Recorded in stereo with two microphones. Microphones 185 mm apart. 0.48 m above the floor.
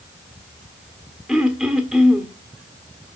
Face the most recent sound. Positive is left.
turn(degrees=0)  # may be behind; listen again after turning